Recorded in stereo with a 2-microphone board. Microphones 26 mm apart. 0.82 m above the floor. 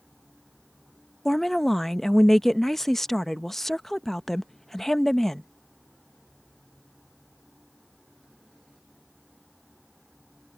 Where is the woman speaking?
15° left (ahead or behind).